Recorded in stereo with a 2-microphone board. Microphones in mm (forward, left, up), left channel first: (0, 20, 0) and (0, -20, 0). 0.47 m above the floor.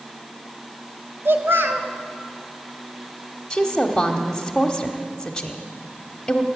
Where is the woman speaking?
15° left (ahead or behind), 1.2 m.